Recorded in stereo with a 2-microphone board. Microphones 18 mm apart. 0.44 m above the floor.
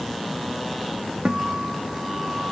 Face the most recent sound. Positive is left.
turn(degrees=-50)  # may be behind; listen again after turning